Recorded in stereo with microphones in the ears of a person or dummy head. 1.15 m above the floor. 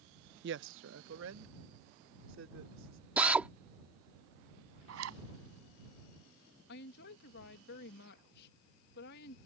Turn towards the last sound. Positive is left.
turn(degrees=55)  # may be behind; listen again after turning